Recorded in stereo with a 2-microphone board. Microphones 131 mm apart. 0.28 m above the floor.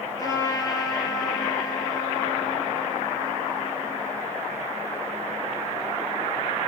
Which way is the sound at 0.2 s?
30° left (ahead or behind).